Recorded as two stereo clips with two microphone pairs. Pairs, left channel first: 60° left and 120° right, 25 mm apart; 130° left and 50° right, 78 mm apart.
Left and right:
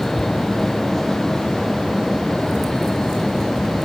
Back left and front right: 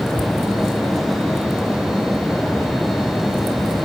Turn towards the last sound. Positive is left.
No sound to turn to.